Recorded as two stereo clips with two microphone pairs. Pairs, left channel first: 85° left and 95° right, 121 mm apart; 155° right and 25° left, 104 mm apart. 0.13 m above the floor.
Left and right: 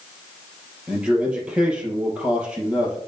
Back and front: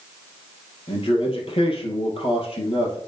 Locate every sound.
0.9 s a man speaking: 175° right, 3 m